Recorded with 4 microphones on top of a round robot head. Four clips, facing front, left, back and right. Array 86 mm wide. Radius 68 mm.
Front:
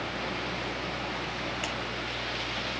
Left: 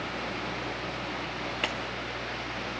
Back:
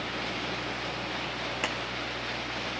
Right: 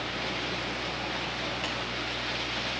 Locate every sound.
1.6 s a clap: 130° left, 1.6 m